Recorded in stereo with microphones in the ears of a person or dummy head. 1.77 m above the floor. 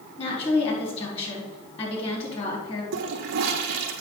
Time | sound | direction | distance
0.2 | a woman speaking | 35° left (ahead or behind) | 3.5 m
2.9 | a toilet flushing | 55° right (ahead or behind) | 0.9 m